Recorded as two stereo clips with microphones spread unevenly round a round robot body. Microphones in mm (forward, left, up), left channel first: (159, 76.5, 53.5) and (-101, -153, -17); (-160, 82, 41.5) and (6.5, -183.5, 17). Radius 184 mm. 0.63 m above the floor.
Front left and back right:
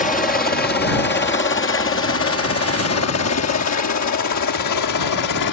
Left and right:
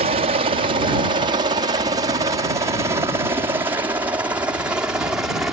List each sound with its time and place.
0.0 s a helicopter: 25° right; by 5.5 s 25° left